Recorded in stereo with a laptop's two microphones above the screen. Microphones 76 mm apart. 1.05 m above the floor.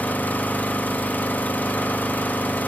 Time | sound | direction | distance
0.0 | an engine running | 20° left (ahead or behind) | 1.0 m